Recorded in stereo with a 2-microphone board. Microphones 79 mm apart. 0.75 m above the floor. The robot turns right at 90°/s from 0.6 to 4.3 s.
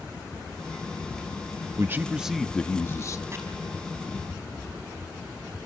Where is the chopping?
30° right (ahead or behind), 6 m; by 3.4 s 40° right (ahead or behind), 6 m.